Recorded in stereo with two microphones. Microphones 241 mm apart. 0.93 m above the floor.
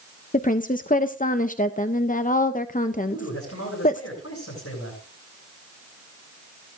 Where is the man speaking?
75° left (ahead or behind), 7 m.